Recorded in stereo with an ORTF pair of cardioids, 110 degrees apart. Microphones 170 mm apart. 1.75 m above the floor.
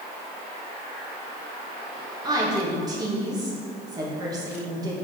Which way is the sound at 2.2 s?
20° right.